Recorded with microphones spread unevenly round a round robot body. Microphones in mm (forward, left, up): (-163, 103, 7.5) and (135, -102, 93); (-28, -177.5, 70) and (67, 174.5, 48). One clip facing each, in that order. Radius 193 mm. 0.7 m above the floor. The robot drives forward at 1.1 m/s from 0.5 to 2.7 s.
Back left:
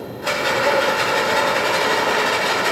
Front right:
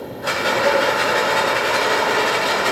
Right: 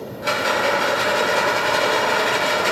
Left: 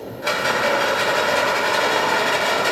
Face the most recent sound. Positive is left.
turn(degrees=120)